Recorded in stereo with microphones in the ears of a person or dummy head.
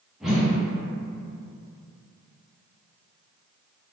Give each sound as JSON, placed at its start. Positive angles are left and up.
{"t": 0.2, "sound": "a whoosh", "side_deg": -10, "distance_m": 0.6}